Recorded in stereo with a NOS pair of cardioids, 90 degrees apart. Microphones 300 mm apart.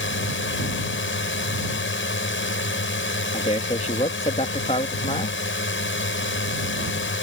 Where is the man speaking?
20° left.